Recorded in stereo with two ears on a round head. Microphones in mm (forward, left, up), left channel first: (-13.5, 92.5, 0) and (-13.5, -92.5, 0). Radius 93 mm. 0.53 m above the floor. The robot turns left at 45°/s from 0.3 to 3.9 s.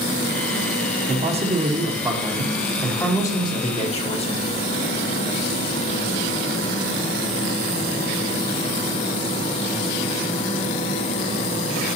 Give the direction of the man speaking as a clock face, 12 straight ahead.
4 o'clock.